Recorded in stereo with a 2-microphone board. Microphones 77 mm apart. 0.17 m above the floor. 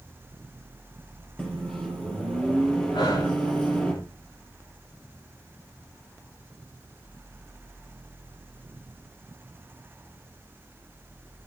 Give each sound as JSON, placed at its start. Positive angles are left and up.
{"t": 1.4, "sound": "a microwave", "side_deg": 15, "distance_m": 3.5}
{"t": 2.9, "sound": "breathing", "side_deg": 75, "distance_m": 4.5}